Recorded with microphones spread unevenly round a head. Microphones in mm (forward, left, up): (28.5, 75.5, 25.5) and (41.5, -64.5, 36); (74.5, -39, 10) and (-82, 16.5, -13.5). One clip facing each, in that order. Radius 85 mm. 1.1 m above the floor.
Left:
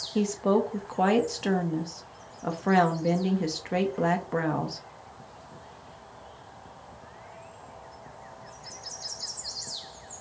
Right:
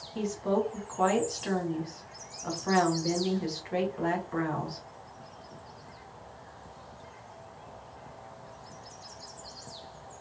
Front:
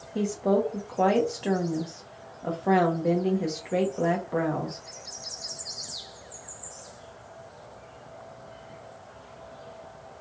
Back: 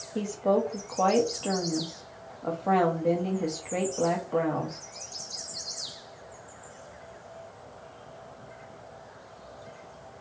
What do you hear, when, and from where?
0.1 s a woman speaking: 60° left, 1.2 m